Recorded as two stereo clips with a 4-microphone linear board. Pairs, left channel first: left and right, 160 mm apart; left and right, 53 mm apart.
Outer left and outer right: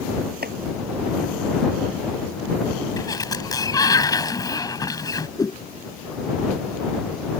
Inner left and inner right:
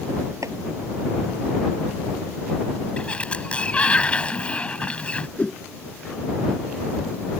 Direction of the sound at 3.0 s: 25° left (ahead or behind).